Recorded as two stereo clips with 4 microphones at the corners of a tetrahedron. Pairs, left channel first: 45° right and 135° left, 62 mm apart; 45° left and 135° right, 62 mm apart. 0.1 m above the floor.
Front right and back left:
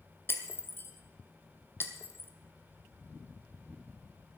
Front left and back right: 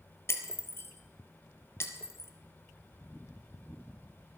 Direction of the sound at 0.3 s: 5° left.